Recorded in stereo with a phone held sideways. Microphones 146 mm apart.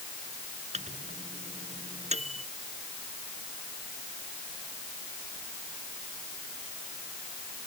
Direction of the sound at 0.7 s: 50° right (ahead or behind).